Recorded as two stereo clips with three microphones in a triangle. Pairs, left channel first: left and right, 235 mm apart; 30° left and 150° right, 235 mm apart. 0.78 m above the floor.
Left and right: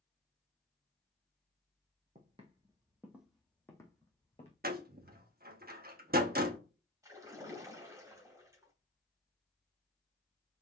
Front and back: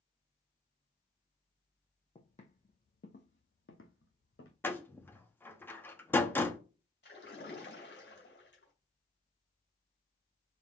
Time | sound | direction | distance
2.1 | footsteps | 35° right | 1.7 m
4.6 | a door slam | 50° right | 1.0 m
7.0 | a splash | 15° right | 2.5 m